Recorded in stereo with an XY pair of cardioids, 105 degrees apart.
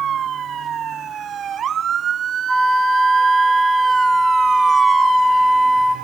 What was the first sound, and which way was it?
A flute, 5° right.